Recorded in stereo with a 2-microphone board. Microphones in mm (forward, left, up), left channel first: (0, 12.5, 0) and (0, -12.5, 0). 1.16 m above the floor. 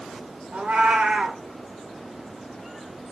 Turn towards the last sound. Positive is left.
turn(degrees=-55)  # may be behind; listen again after turning